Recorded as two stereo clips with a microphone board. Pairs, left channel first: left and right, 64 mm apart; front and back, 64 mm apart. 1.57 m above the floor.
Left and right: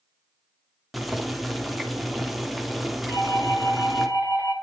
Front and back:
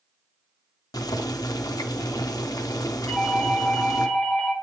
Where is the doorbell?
80° left, 5 m.